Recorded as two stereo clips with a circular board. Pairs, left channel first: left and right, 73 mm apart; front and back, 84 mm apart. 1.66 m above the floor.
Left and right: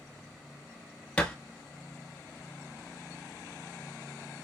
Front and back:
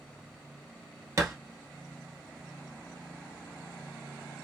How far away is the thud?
About 1.2 m.